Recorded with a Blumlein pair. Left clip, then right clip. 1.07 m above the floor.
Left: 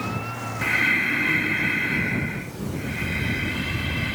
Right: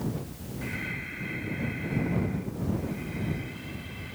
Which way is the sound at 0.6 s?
35° left.